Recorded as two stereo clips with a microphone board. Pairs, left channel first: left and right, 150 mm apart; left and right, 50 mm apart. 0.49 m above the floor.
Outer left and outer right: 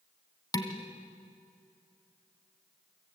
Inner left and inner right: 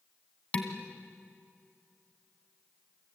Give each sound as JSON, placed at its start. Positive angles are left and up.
{"t": 0.5, "sound": "dishes clattering", "side_deg": 25, "distance_m": 2.5}